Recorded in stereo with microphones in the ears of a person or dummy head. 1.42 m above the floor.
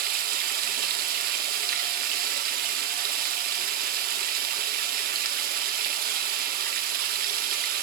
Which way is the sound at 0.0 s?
50° right (ahead or behind).